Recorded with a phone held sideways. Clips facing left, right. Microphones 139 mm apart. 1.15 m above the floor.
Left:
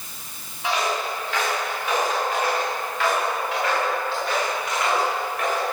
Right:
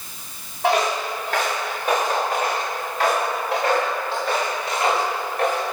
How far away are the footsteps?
About 5 m.